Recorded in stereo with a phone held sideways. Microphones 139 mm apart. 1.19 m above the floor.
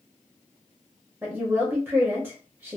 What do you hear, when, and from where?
1.2 s a woman speaking: 15° right (ahead or behind), 0.9 m